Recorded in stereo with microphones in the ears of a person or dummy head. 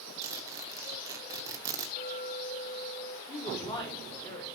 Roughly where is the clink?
Left.